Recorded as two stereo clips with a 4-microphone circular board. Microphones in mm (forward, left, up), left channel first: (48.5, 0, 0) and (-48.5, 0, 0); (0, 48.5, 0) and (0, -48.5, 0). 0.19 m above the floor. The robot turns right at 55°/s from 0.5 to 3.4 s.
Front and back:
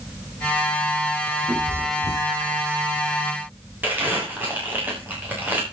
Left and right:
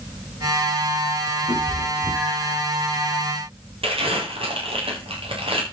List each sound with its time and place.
1.5 s a cat meowing: 125° left, 8 m; by 2.6 s 175° right, 8 m
3.8 s crumpling: 110° right, 7 m